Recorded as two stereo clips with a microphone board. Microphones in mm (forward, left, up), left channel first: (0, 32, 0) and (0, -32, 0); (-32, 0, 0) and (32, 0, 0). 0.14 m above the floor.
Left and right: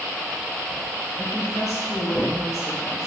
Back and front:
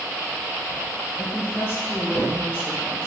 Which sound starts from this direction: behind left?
A woman speaking, at 1.1 s.